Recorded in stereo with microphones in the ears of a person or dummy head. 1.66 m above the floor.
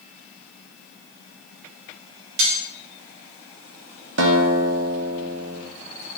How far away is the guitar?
About 1.2 m.